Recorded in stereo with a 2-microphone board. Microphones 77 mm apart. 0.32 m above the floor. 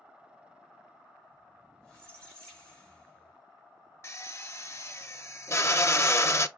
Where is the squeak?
15° left (ahead or behind), 2.5 m.